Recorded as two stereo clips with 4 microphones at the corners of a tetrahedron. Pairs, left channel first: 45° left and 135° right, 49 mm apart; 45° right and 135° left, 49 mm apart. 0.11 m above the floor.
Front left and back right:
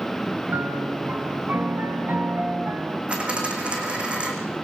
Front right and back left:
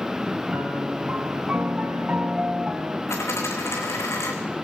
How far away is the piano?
About 1.6 m.